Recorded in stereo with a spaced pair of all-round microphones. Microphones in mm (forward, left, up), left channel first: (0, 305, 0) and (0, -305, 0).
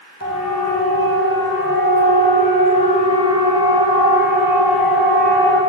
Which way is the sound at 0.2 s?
25° right (ahead or behind).